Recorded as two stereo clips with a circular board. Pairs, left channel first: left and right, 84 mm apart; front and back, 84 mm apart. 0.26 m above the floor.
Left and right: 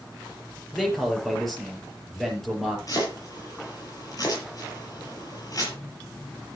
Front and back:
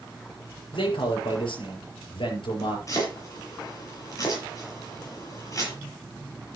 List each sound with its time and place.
0.7 s a man speaking: 5° left, 5.5 m
2.9 s chopping: 50° left, 7 m